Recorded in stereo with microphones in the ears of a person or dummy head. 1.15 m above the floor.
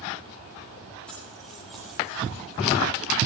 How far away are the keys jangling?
About 6.5 m.